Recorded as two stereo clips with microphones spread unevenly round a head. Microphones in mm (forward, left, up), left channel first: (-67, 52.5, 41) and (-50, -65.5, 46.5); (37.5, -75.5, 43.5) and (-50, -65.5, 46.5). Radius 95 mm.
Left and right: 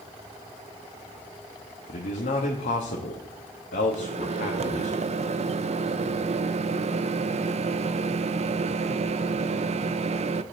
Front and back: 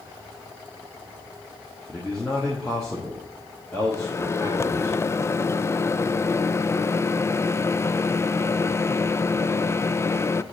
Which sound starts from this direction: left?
A man speaking, at 1.9 s.